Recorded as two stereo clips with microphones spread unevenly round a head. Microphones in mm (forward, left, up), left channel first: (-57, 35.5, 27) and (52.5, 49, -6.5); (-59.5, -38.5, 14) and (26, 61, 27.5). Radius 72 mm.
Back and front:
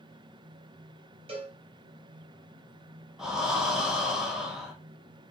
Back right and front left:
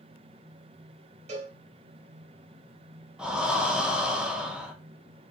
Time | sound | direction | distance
1.3 | a cowbell | 15° left | 1.4 m
3.2 | breathing | 40° right | 0.8 m